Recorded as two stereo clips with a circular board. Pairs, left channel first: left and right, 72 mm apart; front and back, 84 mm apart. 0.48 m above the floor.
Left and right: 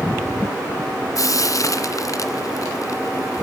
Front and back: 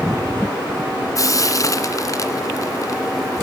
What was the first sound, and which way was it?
Frying, 50° left.